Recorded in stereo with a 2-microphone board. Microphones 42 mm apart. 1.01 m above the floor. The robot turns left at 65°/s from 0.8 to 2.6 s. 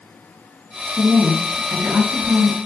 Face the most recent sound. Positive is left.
turn(degrees=-130)